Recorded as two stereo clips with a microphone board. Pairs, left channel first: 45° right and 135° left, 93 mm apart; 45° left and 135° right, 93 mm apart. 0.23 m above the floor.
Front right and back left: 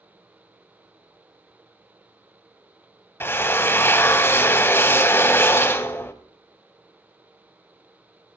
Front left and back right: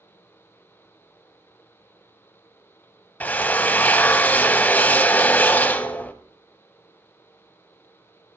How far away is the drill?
About 0.7 m.